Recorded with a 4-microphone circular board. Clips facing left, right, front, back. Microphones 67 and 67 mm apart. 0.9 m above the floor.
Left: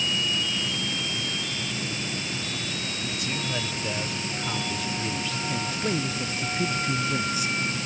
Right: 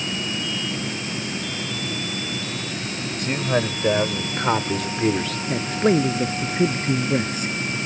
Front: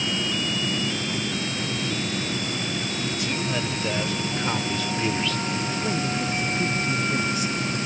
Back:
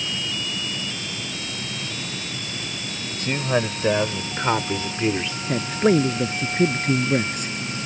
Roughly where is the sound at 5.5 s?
Behind right.